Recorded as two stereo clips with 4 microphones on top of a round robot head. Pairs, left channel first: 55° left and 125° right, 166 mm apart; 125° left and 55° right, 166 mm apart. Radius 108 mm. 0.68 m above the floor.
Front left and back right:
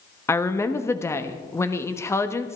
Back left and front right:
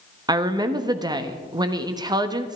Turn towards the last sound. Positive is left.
turn(degrees=-10)